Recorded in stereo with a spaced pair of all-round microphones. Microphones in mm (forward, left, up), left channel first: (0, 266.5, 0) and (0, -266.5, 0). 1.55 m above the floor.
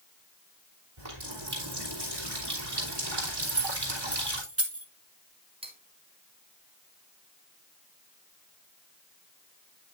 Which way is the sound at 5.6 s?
10° right (ahead or behind).